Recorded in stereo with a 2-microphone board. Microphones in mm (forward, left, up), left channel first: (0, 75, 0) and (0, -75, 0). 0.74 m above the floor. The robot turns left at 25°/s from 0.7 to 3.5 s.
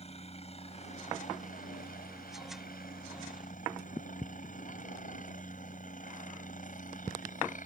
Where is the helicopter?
135° left; by 7.7 s 65° left.